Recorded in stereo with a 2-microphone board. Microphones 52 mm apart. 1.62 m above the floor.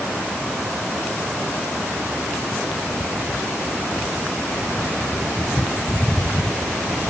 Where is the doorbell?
I don't hear a doorbell.